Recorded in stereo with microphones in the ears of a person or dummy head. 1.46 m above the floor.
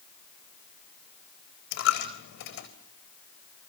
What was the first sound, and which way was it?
A dropped coin, 60° left (ahead or behind).